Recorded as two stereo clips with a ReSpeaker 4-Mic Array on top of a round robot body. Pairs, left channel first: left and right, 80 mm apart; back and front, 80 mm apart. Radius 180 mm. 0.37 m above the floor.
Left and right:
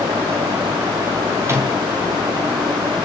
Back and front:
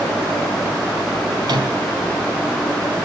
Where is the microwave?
30° right, 4 m.